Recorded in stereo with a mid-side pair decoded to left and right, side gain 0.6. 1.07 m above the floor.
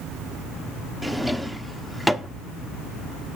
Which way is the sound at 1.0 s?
Straight ahead.